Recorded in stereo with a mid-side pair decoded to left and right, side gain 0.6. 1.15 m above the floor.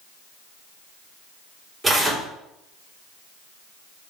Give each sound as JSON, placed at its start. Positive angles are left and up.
{"t": 1.8, "sound": "tearing paper", "azimuth_deg": -20, "distance_m": 4.0}